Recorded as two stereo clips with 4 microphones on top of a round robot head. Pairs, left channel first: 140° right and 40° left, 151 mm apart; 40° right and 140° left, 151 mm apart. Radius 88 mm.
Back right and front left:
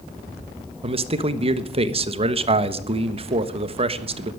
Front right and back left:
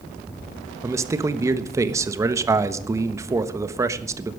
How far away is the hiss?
I don't hear a hiss.